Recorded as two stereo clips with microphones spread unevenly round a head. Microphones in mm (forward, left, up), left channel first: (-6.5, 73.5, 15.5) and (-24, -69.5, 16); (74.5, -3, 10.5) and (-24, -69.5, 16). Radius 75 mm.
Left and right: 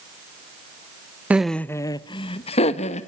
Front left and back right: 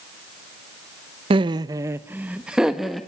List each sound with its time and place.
1.3 s laughter: 175° right, 0.5 m; by 3.1 s 120° left, 1.3 m